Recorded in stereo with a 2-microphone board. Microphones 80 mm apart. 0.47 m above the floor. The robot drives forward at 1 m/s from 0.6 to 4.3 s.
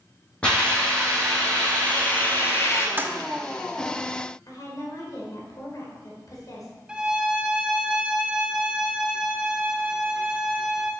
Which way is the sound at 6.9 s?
10° right (ahead or behind).